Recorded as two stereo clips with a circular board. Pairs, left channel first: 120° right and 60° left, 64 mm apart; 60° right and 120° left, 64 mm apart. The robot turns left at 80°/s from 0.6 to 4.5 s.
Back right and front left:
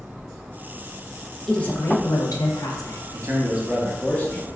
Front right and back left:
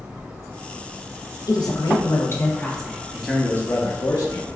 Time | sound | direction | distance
1.5 | a woman speaking | 40° right | 0.6 m
3.1 | a man speaking | 35° left | 0.8 m